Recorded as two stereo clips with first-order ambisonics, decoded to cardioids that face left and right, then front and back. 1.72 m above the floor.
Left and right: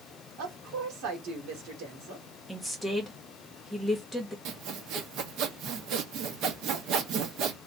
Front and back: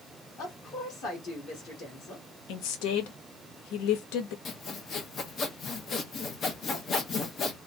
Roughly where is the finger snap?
No finger snap in this recording.